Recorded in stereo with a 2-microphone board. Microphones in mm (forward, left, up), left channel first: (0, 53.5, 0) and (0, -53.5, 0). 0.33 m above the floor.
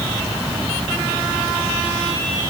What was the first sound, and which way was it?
Only background noise.